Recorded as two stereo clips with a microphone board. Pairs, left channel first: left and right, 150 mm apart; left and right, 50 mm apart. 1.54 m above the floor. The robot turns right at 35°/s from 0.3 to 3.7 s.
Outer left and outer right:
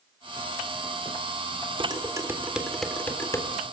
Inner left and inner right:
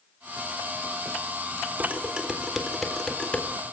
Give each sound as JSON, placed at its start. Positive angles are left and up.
{"t": 1.8, "sound": "dishes clattering", "side_deg": -35, "distance_m": 3.5}